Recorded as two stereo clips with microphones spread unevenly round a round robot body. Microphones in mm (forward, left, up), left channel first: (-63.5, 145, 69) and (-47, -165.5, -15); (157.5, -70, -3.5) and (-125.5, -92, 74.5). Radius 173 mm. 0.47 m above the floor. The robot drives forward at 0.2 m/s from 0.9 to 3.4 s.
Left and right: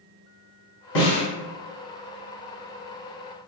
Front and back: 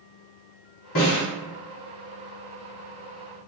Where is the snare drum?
60° left, 1.9 m.